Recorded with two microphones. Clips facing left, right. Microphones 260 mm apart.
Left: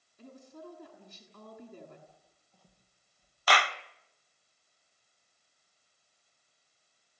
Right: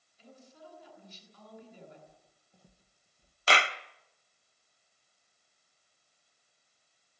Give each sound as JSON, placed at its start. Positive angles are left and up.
{"t": 0.2, "sound": "a woman speaking", "side_deg": 55, "distance_m": 8.5}
{"t": 2.1, "sound": "footsteps", "side_deg": -15, "distance_m": 3.5}
{"t": 3.5, "sound": "a clap", "side_deg": -25, "distance_m": 0.9}